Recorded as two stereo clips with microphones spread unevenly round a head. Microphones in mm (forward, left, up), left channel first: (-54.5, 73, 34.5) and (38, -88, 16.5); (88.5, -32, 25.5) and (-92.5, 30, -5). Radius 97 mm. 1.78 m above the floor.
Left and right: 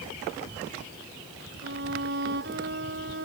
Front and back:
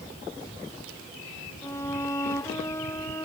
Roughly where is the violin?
Right.